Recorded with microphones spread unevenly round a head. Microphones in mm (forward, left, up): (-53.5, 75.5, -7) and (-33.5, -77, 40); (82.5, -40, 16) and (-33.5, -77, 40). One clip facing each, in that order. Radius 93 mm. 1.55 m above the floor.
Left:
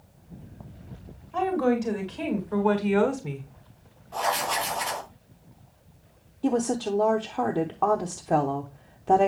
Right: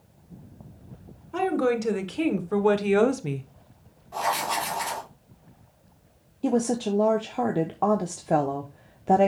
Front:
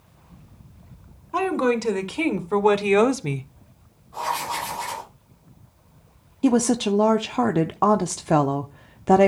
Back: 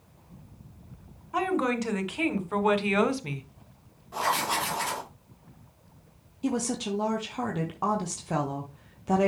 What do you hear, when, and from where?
1.3 s a woman speaking: 40° right, 2.5 m; by 3.5 s 20° right, 0.9 m
4.1 s writing: 165° right, 4 m
6.4 s a woman speaking: 10° right, 0.7 m